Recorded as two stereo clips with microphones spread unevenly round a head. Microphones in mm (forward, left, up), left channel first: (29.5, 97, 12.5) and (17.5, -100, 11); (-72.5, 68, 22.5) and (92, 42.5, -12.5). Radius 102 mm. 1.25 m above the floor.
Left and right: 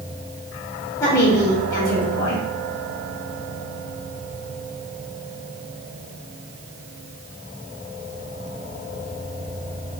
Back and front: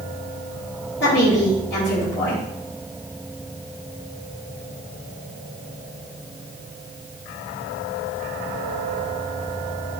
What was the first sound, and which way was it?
A woman speaking, 160° left.